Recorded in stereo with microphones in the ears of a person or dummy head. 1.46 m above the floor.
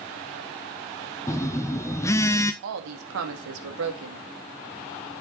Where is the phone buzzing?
10° left (ahead or behind), 0.6 m.